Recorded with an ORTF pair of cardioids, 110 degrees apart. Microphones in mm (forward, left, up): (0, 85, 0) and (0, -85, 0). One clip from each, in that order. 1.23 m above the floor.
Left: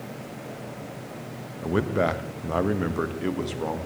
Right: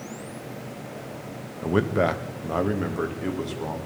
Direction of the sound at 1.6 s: 10° right.